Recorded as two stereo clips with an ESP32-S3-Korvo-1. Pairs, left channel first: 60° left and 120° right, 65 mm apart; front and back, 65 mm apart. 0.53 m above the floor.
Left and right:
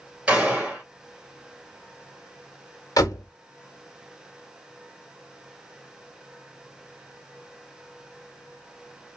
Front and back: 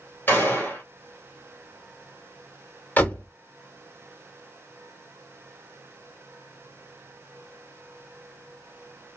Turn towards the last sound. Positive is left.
turn(degrees=60)